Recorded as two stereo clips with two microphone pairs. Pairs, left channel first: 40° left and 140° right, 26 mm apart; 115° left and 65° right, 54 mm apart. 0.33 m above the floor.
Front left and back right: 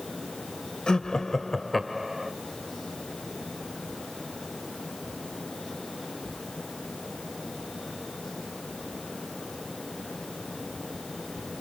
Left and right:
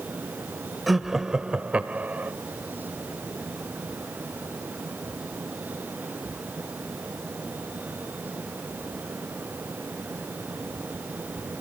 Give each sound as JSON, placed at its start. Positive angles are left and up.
{"t": 0.9, "sound": "laughter", "azimuth_deg": 20, "distance_m": 1.1}